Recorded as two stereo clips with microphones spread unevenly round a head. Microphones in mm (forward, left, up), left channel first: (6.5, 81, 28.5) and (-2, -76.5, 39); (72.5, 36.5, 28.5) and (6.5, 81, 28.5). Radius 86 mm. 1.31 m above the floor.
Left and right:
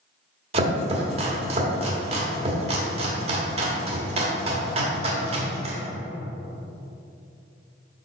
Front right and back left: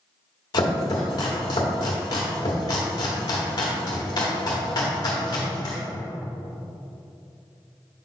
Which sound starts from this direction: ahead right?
Chopping, at 0.5 s.